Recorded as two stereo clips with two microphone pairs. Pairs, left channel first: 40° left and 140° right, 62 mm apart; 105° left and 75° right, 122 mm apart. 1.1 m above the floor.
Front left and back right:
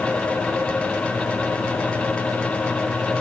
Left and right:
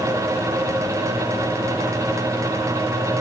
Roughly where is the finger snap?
No finger snap in this recording.